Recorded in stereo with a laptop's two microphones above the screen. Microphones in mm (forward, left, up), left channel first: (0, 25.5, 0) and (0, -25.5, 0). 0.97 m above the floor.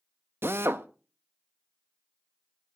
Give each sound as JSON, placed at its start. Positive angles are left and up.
{"t": 0.4, "sound": "a drill", "side_deg": -50, "distance_m": 0.5}